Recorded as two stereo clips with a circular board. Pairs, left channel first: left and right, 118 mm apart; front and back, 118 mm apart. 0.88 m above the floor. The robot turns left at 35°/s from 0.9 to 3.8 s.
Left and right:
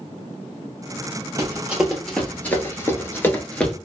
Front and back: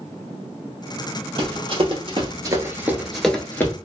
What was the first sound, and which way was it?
Running footsteps, 150° right.